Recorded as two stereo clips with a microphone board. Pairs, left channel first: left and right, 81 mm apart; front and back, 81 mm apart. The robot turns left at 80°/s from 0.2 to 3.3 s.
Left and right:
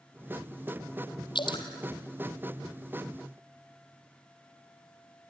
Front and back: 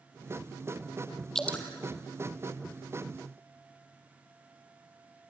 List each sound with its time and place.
1.4 s dripping: 85° left, 1.8 m; by 1.7 s 60° left, 1.8 m